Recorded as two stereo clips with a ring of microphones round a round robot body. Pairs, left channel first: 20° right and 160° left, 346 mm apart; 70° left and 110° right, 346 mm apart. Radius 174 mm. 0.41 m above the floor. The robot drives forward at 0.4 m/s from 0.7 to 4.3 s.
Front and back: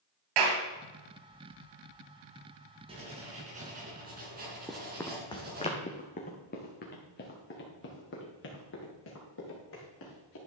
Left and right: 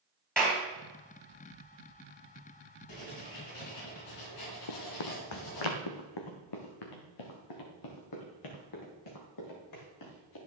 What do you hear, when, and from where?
0.4 s a clap: 155° left, 3 m
2.9 s writing: 85° left, 3.5 m; by 5.7 s 95° left, 3.5 m
4.7 s running footsteps: 70° left, 1.1 m; by 10.4 s 30° left, 5 m